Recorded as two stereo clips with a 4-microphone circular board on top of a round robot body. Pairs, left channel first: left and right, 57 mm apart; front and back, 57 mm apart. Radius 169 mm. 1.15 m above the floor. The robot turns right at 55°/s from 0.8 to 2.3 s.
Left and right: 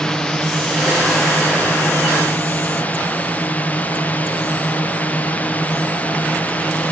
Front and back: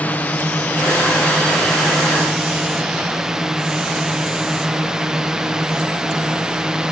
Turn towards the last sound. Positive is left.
turn(degrees=115)